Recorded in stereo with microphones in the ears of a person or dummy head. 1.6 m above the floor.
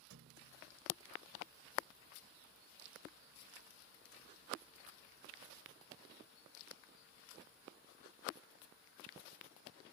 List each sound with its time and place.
0.1 s a thud: 70° right (ahead or behind)